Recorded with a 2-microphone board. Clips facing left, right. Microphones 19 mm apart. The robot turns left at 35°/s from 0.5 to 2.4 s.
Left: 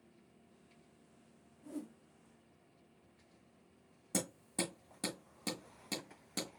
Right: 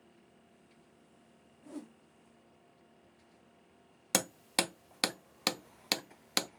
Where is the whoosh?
15° right (ahead or behind), 0.7 m; by 2.0 s 25° right (ahead or behind), 0.7 m.